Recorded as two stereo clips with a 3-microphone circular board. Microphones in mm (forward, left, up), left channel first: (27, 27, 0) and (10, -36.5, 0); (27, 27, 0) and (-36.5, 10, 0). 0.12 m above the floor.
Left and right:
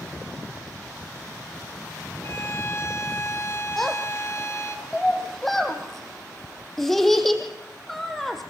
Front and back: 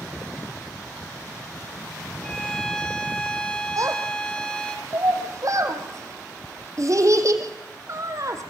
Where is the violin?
90° left, 1.4 m.